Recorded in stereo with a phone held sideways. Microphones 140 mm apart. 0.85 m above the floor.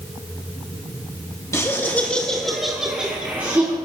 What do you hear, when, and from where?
1.5 s laughter: 20° left (ahead or behind), 1.3 m; by 3.8 s 15° right (ahead or behind), 2 m